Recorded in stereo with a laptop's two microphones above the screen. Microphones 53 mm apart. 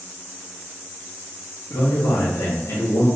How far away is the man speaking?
About 0.9 m.